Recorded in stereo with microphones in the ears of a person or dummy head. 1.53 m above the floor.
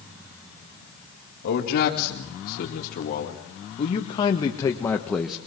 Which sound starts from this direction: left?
A man speaking, at 1.4 s.